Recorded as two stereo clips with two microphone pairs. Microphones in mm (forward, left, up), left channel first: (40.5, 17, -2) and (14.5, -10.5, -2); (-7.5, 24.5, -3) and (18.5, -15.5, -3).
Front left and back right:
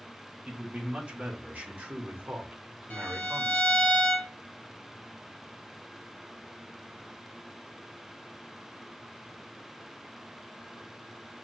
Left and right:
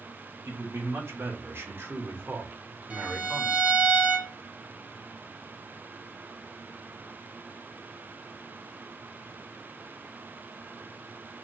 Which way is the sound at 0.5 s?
75° right.